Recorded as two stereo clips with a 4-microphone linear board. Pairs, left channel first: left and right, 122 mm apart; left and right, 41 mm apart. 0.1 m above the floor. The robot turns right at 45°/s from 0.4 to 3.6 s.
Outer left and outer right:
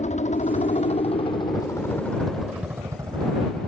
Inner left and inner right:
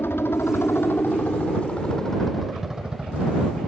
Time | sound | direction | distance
0.0 | a helicopter | 90° left | ?